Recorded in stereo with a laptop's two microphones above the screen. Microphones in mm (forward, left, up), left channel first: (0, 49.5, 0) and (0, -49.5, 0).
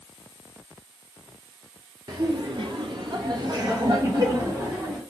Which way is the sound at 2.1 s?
40° right (ahead or behind).